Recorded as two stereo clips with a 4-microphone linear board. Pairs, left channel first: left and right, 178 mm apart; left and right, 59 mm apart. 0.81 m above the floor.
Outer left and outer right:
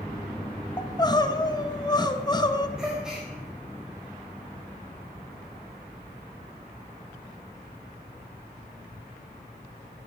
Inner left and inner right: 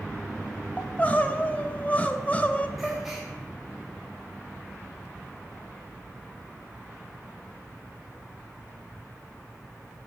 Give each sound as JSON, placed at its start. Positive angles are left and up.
{"t": 0.8, "sound": "crying", "side_deg": 25, "distance_m": 0.8}
{"t": 2.8, "sound": "a gasp", "side_deg": -5, "distance_m": 4.0}